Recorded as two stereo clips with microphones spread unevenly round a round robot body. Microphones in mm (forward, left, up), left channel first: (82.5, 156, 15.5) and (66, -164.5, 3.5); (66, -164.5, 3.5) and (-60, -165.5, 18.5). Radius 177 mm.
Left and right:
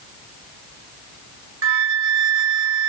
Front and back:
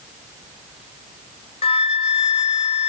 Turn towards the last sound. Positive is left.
turn(degrees=-45)